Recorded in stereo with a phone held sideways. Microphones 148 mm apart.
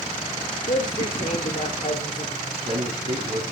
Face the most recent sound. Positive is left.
turn(degrees=-40)  # may be behind; listen again after turning